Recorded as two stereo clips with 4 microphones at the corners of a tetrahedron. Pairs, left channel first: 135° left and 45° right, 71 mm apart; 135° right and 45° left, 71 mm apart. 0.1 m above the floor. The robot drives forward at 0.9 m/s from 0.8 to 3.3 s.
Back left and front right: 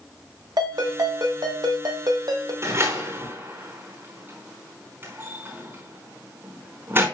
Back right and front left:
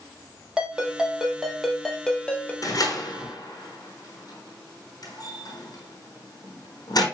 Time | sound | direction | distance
0.6 | a ringtone | 35° right | 3 m
2.6 | a door slam | 95° right | 4.5 m